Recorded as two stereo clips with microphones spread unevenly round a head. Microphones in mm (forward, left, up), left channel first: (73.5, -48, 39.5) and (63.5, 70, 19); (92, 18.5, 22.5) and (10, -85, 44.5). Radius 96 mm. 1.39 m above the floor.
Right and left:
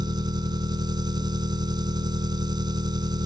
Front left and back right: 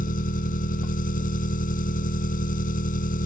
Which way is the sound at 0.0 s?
40° left.